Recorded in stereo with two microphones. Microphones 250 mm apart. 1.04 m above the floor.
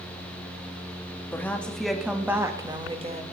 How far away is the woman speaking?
About 1.7 m.